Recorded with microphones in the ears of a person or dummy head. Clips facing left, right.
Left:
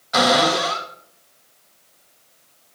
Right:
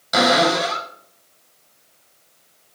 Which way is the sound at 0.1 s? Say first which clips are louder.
Right 1 dB; 50° right (ahead or behind).